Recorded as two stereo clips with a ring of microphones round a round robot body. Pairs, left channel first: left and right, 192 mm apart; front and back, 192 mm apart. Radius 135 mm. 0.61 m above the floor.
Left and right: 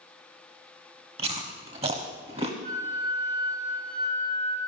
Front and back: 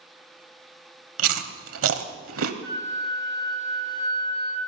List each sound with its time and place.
1.2 s chewing: 160° right, 1.0 m
2.6 s a flute: 105° right, 4.5 m